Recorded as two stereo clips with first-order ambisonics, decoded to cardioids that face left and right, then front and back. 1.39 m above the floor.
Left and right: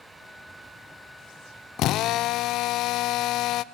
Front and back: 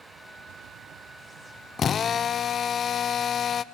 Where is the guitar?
I don't hear a guitar.